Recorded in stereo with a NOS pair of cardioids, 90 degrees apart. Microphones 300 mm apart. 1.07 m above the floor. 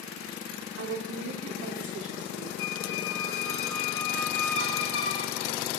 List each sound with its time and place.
0.8 s a woman speaking: 55° right, 4 m
2.6 s a squeak: 45° left, 2 m